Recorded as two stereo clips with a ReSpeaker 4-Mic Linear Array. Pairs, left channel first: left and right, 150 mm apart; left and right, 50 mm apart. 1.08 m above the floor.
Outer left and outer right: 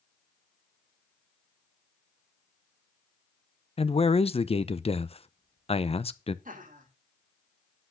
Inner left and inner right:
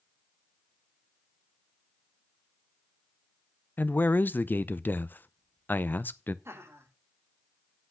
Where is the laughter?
60° right (ahead or behind), 2.5 m.